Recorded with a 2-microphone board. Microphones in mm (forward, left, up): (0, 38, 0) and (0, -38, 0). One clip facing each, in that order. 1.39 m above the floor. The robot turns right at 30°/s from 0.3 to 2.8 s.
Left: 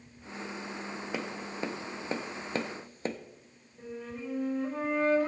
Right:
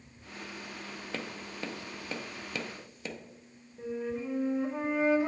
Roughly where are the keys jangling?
No keys jangling in this recording.